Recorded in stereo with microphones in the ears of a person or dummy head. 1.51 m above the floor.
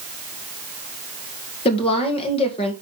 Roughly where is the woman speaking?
Left.